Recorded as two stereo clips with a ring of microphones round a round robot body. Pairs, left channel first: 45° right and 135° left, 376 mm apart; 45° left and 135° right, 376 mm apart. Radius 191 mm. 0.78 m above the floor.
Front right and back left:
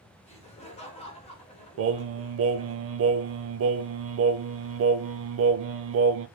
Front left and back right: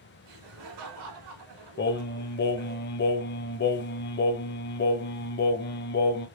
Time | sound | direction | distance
0.2 | laughter | 120° right | 3 m
1.8 | singing | 95° left | 0.6 m